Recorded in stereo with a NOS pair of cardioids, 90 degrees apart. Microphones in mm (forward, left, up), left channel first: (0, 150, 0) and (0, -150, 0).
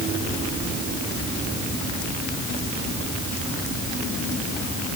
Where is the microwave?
No microwave in this recording.